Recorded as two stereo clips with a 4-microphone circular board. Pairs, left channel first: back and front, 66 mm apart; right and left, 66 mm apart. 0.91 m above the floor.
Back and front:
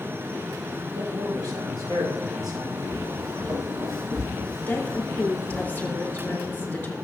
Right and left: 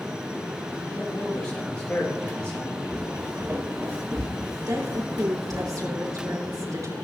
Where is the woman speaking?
115° left, 3.5 m.